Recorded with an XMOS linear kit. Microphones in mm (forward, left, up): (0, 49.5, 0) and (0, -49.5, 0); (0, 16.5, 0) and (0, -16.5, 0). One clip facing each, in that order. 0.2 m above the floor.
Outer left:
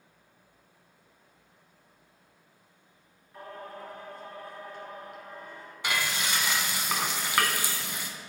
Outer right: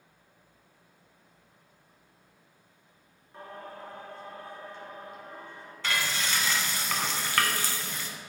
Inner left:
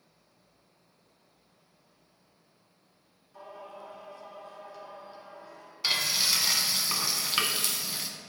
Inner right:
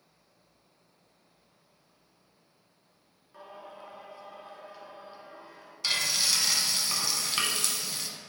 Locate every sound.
3.3 s singing: 25° right (ahead or behind), 1.1 m
5.8 s frying: 15° left (ahead or behind), 0.7 m